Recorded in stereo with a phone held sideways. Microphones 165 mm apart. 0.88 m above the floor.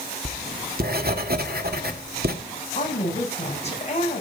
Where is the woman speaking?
40° left (ahead or behind), 7 m.